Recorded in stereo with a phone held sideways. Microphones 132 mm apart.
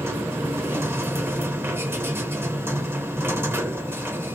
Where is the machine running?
15° right (ahead or behind), 0.9 m.